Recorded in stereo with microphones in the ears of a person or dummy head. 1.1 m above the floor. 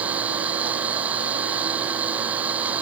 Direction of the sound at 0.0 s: 10° right (ahead or behind).